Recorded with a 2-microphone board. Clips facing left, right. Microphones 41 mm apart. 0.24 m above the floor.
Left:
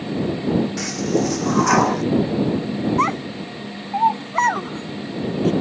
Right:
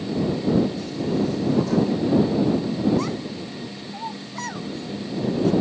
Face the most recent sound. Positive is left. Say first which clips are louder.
# left 7 dB
turn(degrees=55)  # may be behind; listen again after turning